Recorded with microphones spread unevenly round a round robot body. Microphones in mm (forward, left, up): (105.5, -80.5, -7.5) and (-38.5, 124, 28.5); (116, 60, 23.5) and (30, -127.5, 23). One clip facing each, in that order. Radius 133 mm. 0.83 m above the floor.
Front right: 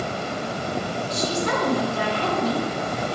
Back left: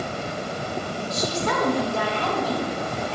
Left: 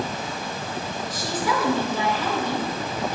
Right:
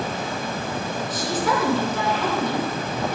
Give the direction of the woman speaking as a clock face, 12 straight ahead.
3 o'clock.